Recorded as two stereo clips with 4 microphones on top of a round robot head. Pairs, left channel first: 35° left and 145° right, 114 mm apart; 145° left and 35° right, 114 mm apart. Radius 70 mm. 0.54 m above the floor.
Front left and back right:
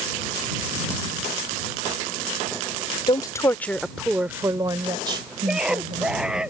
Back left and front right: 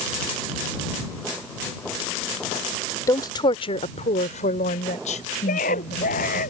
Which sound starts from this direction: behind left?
A scream, at 5.5 s.